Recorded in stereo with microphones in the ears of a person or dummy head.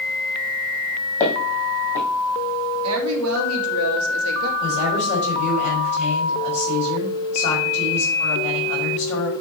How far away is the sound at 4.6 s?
About 4.5 m.